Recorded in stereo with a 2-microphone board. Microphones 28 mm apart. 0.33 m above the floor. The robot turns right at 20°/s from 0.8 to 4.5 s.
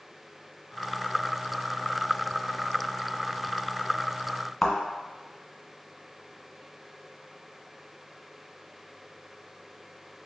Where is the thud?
5° left (ahead or behind), 1.4 m.